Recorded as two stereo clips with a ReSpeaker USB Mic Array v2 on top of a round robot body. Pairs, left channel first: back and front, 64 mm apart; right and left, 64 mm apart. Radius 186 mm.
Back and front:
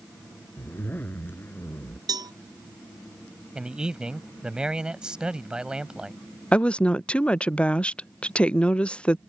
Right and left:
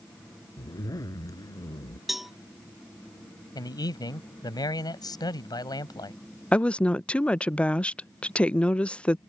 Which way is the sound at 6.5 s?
135° right.